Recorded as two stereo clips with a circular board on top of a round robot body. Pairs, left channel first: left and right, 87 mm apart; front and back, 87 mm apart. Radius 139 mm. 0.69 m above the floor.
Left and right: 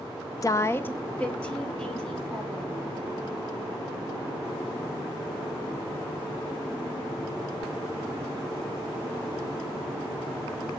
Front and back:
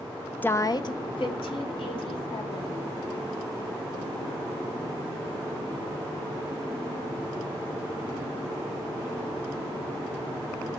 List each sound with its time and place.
0.4 s a woman speaking: 65° left, 0.7 m; by 2.7 s 5° left, 3 m